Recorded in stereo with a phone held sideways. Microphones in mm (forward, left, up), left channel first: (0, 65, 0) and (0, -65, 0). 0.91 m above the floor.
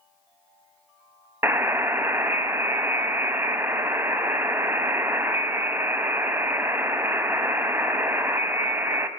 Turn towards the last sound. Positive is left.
turn(degrees=-20)  # may be behind; listen again after turning